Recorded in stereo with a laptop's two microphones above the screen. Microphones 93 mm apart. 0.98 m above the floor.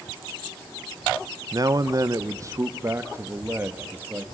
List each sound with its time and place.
1.5 s a man speaking: 40° right (ahead or behind), 0.7 m; by 4.2 s 20° right (ahead or behind), 1.8 m